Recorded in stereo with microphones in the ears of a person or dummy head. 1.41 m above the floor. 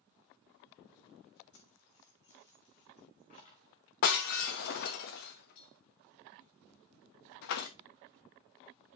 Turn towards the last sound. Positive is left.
turn(degrees=50)  # may be behind; listen again after turning